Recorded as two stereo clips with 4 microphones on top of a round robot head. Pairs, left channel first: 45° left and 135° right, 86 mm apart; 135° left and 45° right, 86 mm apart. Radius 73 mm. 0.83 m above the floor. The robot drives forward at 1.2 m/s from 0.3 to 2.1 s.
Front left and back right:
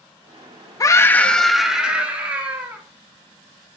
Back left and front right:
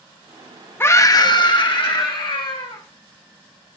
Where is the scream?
80° left, 1.0 m; by 2.8 s 155° left, 1.7 m.